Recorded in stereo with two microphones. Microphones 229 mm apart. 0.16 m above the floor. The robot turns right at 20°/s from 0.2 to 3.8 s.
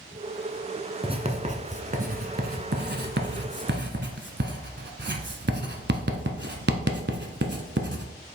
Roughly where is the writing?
Right.